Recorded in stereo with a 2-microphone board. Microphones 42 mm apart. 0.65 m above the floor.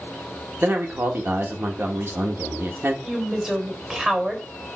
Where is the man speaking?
60° right (ahead or behind), 1.9 m.